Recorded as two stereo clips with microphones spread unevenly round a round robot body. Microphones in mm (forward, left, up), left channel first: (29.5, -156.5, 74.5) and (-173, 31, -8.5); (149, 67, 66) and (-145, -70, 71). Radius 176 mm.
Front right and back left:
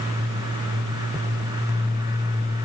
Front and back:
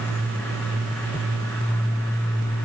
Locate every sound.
Only background noise.